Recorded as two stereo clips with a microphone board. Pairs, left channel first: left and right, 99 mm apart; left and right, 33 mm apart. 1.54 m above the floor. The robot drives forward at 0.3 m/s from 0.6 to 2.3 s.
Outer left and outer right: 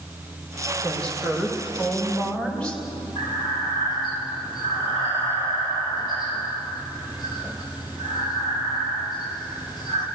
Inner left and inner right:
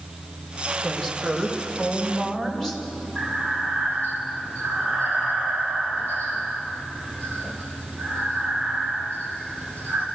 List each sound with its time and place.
0.8 s a woman speaking: 10° left (ahead or behind), 5.5 m
3.1 s breathing: 45° left (ahead or behind), 7.5 m